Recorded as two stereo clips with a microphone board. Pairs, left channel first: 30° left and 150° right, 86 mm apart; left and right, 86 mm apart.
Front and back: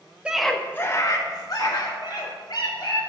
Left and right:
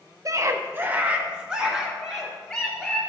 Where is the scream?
80° right, 0.6 m; by 3.0 s straight ahead, 2.5 m.